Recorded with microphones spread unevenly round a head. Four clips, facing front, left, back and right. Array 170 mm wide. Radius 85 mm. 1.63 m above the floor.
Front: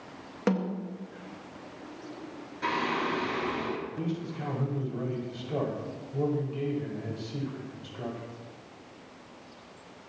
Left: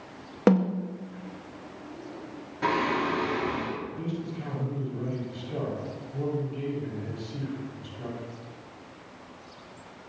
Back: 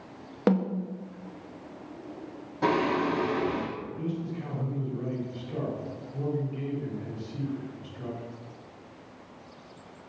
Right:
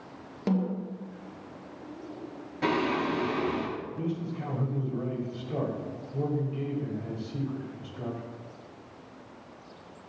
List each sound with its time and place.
0.5 s a snare drum: 100° left, 1.9 m
2.6 s singing: 175° right, 6 m
4.0 s a man speaking: 20° right, 6.5 m